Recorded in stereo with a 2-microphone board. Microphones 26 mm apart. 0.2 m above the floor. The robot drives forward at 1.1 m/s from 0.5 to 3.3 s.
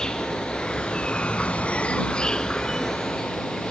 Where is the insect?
20° left (ahead or behind), 1.5 m; by 3.7 s 15° left (ahead or behind), 1.9 m.